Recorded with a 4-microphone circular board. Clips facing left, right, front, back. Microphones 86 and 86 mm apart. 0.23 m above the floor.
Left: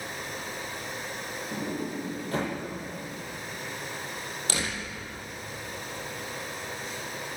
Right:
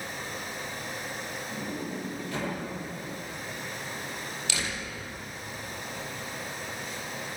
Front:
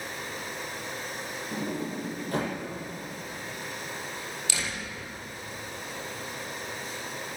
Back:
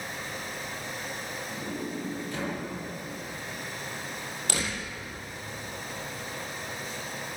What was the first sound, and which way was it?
A sliding door, 45° left.